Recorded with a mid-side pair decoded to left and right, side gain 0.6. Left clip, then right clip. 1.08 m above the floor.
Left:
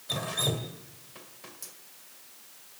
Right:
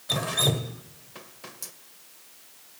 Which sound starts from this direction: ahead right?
Dripping, at 0.1 s.